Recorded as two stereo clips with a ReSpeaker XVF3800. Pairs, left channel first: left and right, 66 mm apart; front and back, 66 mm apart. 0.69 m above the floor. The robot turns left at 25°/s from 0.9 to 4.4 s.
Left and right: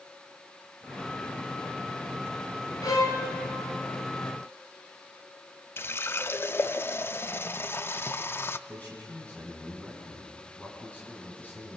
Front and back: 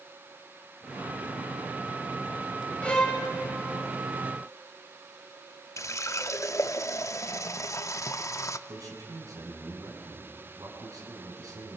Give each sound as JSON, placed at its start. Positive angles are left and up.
{"t": 2.8, "sound": "a violin", "azimuth_deg": 75, "distance_m": 3.0}
{"t": 5.8, "sound": "a running tap", "azimuth_deg": 35, "distance_m": 0.5}
{"t": 8.7, "sound": "a man speaking", "azimuth_deg": 155, "distance_m": 5.0}